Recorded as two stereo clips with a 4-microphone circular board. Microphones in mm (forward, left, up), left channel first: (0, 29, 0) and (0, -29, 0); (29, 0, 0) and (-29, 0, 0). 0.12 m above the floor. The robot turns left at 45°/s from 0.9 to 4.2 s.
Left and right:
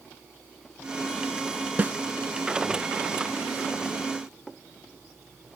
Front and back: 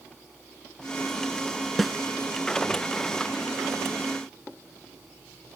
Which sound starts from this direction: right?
A snare drum, at 1.8 s.